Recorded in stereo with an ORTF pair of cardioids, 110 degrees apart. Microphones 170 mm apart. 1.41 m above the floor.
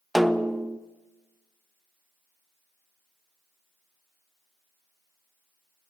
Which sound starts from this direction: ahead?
A snare drum, at 0.1 s.